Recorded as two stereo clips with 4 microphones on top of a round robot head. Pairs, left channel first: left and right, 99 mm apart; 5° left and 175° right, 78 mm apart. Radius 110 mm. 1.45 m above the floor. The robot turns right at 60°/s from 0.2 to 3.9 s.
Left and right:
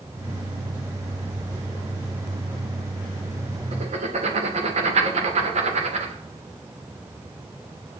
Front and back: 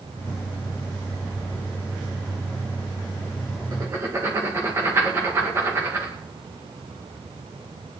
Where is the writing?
120° right, 2.0 m; by 6.1 s 105° right, 2.0 m.